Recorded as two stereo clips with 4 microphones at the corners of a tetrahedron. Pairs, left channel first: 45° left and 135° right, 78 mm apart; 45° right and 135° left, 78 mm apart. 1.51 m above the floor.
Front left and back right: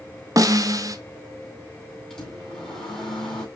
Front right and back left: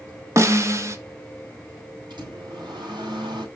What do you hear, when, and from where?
0.4 s a snare drum: 175° right, 1.0 m
2.1 s a microwave: 125° left, 6 m